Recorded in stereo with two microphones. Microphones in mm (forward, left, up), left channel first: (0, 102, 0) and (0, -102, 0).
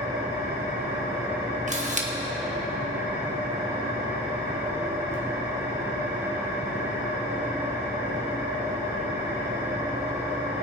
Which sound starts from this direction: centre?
An engine running, at 0.0 s.